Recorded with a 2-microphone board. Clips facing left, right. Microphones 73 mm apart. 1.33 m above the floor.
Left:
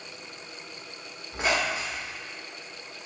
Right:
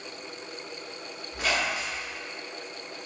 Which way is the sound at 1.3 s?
25° left (ahead or behind).